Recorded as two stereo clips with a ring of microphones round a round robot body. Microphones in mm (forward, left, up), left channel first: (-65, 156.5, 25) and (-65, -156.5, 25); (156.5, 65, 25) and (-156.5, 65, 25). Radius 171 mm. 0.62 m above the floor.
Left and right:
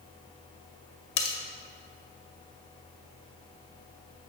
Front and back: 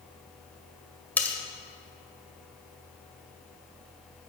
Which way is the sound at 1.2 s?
85° left.